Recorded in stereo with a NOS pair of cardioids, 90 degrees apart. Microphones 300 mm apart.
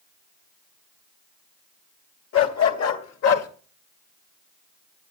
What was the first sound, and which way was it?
A dog barking, 65° left.